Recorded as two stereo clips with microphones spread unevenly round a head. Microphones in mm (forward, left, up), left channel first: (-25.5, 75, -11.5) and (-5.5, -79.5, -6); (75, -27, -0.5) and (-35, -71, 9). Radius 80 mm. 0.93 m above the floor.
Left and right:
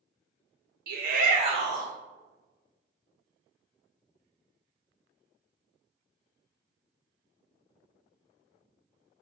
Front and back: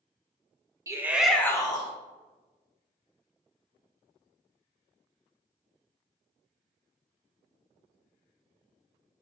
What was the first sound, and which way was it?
A shout, 95° right.